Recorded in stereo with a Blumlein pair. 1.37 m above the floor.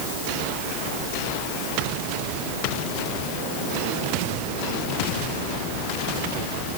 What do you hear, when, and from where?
Only background noise.